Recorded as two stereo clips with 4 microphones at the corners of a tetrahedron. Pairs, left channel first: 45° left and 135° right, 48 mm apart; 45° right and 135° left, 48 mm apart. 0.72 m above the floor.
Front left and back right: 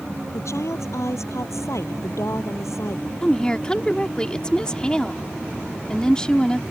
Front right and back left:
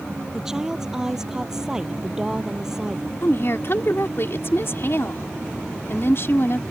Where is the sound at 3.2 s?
25° right.